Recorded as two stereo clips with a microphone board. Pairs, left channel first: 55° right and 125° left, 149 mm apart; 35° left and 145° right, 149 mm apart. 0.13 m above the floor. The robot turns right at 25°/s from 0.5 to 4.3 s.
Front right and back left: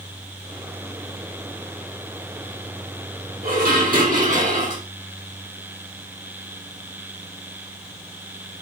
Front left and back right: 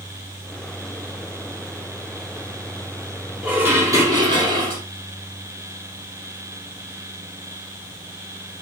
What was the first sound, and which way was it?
Dishes clattering, 135° left.